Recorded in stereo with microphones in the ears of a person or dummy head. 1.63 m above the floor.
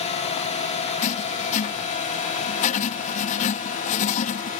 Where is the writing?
40° left (ahead or behind).